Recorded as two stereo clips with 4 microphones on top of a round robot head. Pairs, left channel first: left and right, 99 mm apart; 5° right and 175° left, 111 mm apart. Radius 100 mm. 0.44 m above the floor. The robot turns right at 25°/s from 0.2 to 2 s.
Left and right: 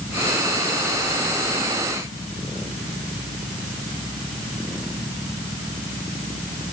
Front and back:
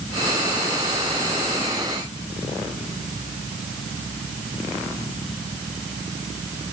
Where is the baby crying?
I don't hear a baby crying.